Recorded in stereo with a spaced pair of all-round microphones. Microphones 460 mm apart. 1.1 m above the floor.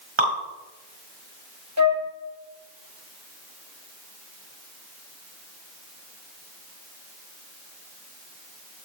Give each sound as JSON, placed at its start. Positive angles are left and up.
{"t": 0.2, "sound": "dripping", "side_deg": -85, "distance_m": 4.0}
{"t": 1.8, "sound": "a flute", "side_deg": -35, "distance_m": 2.5}